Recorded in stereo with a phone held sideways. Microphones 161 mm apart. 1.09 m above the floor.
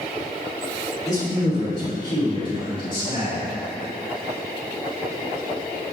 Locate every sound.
1.1 s a man speaking: 25° left (ahead or behind), 2 m; by 3.4 s 35° left (ahead or behind), 3.5 m